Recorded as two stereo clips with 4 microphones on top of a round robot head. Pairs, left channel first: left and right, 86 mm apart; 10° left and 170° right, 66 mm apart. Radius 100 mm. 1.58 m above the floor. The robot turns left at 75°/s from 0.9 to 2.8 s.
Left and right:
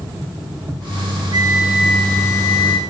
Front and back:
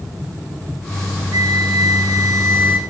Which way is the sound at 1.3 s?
135° right.